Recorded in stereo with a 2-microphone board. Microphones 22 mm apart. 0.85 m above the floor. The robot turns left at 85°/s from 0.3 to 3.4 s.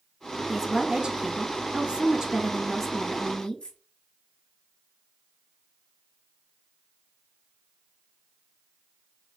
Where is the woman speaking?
Straight ahead, 1.1 m; by 3.8 s 115° left, 1.1 m.